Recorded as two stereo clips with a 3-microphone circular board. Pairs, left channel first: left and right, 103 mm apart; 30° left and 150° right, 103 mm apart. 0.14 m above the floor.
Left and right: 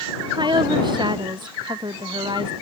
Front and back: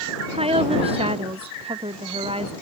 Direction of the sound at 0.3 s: 135° right.